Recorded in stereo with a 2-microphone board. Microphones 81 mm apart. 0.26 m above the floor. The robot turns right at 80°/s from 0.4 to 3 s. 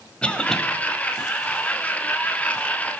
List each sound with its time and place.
0.2 s a cough: 15° left (ahead or behind), 1.1 m; by 0.6 s 5° left (ahead or behind), 1.1 m